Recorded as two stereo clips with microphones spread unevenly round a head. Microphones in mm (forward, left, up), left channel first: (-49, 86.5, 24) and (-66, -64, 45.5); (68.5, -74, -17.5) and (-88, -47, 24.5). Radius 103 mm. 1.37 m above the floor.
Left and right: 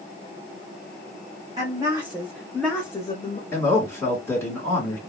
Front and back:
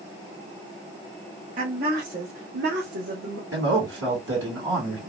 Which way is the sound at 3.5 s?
155° left.